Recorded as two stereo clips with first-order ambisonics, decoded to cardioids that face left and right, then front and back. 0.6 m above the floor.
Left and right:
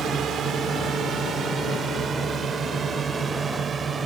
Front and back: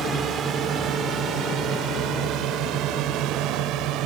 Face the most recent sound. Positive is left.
turn(degrees=-155)